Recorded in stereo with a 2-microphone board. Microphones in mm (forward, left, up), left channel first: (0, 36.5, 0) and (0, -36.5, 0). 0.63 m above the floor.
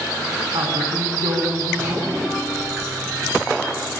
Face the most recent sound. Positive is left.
turn(degrees=-65)  # may be behind; listen again after turning